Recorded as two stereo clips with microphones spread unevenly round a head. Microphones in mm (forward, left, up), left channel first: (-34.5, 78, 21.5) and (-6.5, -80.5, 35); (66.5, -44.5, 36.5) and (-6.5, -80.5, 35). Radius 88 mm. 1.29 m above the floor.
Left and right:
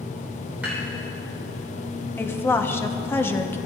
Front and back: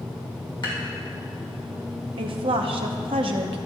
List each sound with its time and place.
0.6 s dishes clattering: straight ahead, 3.5 m
2.2 s a woman speaking: 175° left, 0.8 m